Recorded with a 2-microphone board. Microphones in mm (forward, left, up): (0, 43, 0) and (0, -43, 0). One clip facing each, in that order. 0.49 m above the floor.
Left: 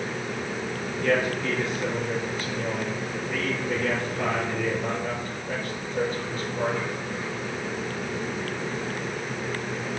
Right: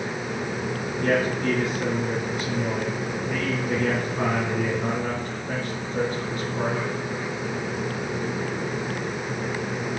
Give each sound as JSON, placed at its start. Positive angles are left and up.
{"t": 1.0, "sound": "a man speaking", "side_deg": -70, "distance_m": 4.0}